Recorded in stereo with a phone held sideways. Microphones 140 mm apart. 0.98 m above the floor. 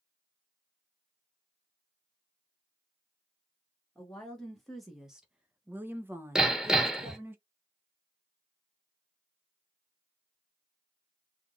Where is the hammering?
5° right (ahead or behind), 1.2 m.